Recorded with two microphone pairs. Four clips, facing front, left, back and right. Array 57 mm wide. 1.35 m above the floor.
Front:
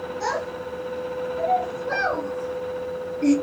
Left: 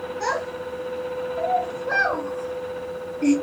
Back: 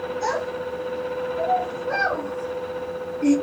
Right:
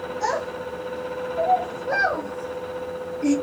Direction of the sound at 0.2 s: 85° left.